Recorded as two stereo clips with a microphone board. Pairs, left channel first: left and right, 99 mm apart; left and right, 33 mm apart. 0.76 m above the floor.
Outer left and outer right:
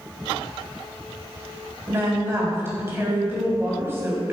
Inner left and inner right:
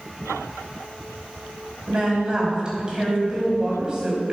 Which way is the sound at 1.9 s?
25° right (ahead or behind).